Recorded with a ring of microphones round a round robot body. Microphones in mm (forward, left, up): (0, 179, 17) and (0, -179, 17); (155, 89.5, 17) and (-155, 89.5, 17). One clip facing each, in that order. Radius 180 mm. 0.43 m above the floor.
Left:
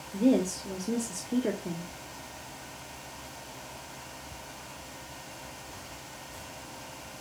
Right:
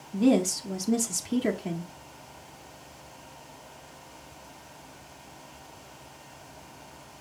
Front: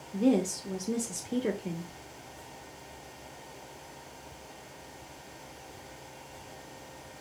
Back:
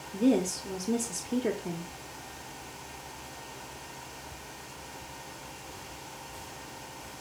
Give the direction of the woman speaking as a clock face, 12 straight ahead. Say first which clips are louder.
Right 2 dB, back 1 dB; 3 o'clock.